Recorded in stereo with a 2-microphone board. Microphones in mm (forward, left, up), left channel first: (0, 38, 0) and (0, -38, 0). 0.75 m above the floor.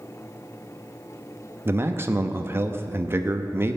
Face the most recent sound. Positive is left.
turn(degrees=-30)  # may be behind; listen again after turning